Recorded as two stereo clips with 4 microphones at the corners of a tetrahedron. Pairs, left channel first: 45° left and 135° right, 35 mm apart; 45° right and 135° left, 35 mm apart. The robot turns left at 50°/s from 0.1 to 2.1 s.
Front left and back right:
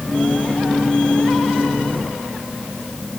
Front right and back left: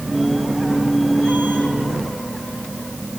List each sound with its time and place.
Only background noise.